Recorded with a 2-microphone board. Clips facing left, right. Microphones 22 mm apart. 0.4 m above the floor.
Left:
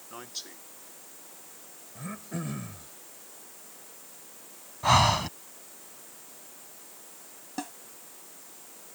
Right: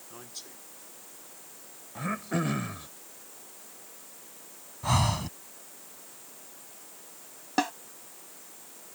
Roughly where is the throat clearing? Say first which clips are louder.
Right 7 dB; right.